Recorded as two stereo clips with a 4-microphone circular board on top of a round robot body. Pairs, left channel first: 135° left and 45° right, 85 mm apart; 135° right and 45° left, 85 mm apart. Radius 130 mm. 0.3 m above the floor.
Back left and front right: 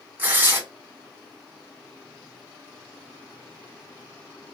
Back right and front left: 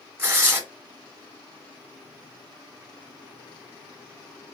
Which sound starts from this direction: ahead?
Tearing paper, at 0.2 s.